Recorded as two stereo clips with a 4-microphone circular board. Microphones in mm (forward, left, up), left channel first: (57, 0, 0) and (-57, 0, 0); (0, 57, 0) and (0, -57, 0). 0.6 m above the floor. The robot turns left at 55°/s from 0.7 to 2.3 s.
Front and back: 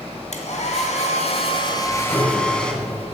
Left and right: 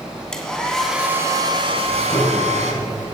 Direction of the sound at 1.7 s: 70° left.